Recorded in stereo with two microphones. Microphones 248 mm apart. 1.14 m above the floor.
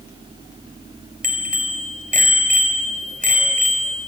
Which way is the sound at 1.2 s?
35° right (ahead or behind).